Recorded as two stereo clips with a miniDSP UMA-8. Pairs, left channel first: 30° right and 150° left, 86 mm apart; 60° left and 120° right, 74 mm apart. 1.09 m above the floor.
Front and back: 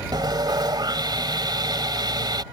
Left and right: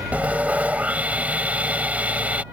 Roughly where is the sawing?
Behind.